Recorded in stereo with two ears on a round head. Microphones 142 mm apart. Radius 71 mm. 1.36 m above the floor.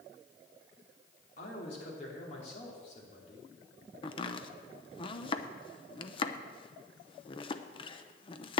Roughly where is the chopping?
Left.